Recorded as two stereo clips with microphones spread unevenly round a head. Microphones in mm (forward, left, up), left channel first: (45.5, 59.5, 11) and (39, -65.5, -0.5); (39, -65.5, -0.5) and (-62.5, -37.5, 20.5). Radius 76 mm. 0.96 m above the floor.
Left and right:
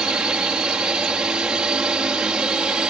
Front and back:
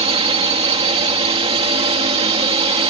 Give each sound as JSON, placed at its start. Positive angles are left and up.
{"t": 0.0, "sound": "a drone", "azimuth_deg": -175}